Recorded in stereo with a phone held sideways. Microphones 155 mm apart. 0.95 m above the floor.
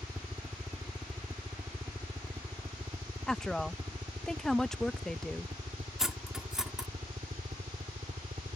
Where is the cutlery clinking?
5° right (ahead or behind).